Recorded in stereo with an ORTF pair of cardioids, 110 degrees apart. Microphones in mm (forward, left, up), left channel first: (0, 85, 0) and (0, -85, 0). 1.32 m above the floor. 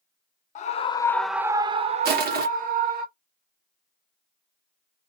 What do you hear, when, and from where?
0.6 s a scream: 50° left, 0.6 m; by 3.0 s 60° right, 1.2 m
2.0 s crushing: 70° right, 1.0 m